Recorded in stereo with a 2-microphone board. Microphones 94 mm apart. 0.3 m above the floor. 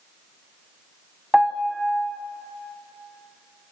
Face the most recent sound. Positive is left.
turn(degrees=-5)  # may be behind; listen again after turning